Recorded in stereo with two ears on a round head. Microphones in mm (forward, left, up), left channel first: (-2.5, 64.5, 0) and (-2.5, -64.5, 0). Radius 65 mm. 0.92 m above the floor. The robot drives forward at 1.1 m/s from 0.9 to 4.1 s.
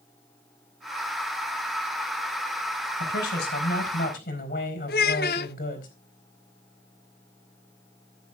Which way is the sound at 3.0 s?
85° left.